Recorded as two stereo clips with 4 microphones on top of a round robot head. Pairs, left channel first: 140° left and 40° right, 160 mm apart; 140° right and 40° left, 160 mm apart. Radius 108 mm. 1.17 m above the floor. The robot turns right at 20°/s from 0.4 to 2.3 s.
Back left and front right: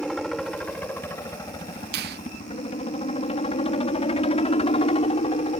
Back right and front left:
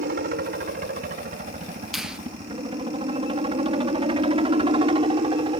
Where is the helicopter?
55° left; by 5.6 s 90° left.